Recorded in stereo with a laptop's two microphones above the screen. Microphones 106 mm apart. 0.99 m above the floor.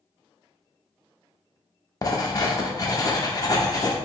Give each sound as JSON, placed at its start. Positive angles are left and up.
{"t": 2.0, "sound": "writing", "side_deg": 35, "distance_m": 0.6}